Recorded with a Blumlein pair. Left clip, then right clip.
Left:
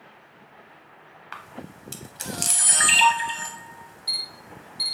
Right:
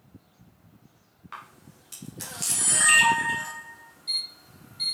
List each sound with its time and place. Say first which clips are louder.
1.3 s a camera shutter: left 3 dB; 70° left, 0.8 m